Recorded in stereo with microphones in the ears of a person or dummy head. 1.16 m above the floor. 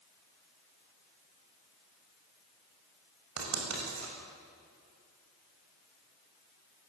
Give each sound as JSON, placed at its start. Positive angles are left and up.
{"t": 3.4, "sound": "writing", "side_deg": -85, "distance_m": 7.5}